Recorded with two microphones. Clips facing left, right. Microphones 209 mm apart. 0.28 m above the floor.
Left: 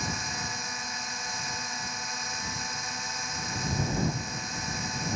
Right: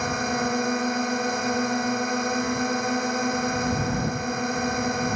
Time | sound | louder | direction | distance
0.0 | a drone | right 12 dB | 65° right (ahead or behind) | ?